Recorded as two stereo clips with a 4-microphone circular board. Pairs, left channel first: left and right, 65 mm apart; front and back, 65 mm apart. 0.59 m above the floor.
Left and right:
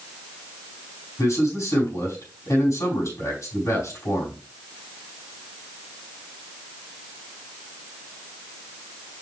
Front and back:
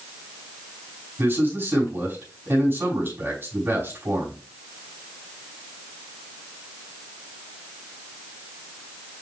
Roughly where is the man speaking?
Behind left.